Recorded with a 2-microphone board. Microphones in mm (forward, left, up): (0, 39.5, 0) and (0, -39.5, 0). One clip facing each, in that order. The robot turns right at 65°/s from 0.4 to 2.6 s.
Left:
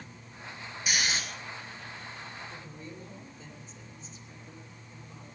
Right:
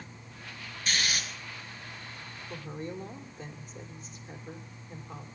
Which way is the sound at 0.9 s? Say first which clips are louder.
Left 1 dB; 10° left (ahead or behind).